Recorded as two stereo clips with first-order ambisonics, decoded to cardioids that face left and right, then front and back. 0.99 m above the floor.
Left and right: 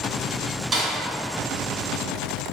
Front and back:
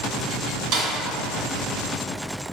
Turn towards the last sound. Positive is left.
turn(degrees=-165)